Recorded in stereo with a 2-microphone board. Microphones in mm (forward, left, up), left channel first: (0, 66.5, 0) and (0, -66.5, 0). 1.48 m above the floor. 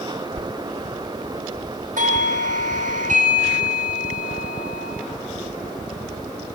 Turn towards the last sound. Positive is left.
turn(degrees=-85)